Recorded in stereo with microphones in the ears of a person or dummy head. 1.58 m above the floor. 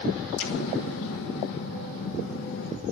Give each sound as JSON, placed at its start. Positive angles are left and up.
{"t": 0.4, "sound": "an explosion", "side_deg": 65, "distance_m": 1.3}